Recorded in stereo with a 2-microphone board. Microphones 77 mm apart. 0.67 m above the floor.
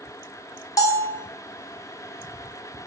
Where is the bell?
50° left (ahead or behind), 0.5 m.